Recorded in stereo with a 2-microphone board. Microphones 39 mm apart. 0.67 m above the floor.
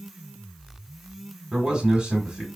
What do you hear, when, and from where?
1.5 s a man speaking: 20° right (ahead or behind), 1.9 m